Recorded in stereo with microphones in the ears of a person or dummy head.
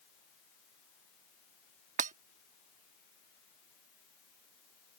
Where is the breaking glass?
45° right (ahead or behind).